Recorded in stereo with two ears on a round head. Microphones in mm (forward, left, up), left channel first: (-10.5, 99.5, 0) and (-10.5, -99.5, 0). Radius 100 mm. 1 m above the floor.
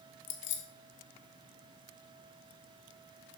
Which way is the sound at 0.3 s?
55° left (ahead or behind).